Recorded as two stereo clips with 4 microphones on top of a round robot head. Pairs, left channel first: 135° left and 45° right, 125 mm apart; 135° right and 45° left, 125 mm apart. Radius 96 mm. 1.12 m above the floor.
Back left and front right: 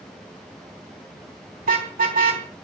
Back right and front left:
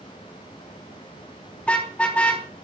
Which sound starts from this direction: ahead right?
A car horn, at 1.6 s.